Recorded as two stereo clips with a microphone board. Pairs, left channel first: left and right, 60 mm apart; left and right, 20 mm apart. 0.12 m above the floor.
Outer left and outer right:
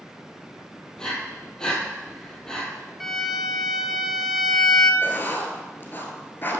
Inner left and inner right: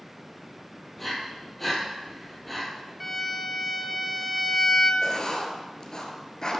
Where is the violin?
Centre (ahead or behind), 1.0 m.